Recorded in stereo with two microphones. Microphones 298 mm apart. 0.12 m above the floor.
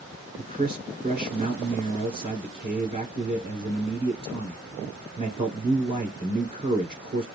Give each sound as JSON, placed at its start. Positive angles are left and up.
{"t": 0.4, "sound": "a man speaking", "side_deg": -15, "distance_m": 1.4}